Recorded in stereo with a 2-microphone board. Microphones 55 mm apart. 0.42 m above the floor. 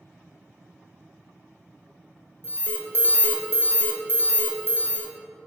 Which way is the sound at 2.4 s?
40° left (ahead or behind).